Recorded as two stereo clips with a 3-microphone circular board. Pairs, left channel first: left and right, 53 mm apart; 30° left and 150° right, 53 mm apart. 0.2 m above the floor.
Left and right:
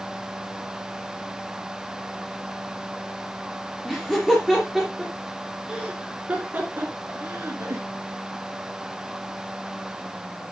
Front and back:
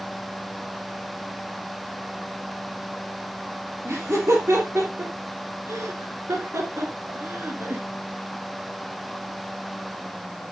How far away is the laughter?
About 3.5 m.